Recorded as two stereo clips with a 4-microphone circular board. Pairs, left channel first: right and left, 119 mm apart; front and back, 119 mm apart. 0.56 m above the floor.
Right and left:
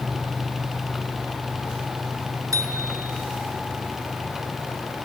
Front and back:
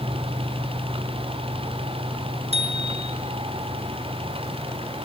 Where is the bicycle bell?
150° left, 5.5 m.